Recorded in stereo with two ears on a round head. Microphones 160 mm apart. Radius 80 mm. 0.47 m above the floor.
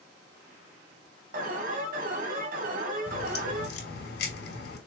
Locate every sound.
1.3 s an alarm: 50° right (ahead or behind), 2.5 m
3.1 s a crack: 65° left (ahead or behind), 4.5 m